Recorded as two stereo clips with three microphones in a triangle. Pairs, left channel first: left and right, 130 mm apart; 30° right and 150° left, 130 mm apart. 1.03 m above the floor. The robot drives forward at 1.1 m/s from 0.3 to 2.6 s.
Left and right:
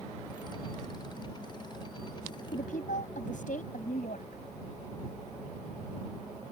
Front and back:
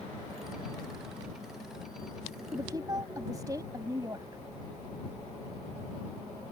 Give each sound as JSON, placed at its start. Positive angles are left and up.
{"t": 2.5, "sound": "a woman speaking", "azimuth_deg": 85}